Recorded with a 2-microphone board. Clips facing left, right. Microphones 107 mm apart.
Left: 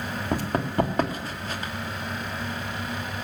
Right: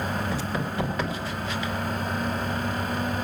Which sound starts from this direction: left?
Running footsteps, at 0.3 s.